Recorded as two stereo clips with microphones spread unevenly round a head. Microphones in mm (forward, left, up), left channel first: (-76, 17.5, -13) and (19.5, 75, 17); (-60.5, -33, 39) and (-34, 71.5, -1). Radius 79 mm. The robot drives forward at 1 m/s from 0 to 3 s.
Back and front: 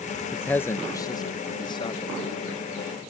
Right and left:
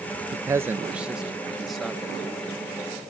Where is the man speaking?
125° left; by 2.5 s 170° left.